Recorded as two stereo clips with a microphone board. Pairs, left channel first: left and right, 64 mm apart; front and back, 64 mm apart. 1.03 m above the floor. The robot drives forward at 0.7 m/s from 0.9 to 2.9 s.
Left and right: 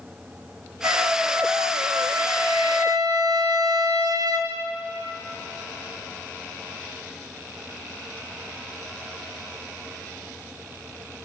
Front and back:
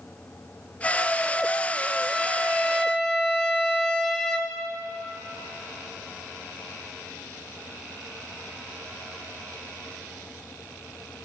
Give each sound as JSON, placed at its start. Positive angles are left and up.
{"t": 0.8, "sound": "a trumpet", "azimuth_deg": -65, "distance_m": 4.0}